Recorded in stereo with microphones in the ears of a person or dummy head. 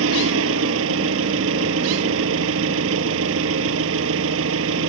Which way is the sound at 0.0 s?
75° right (ahead or behind).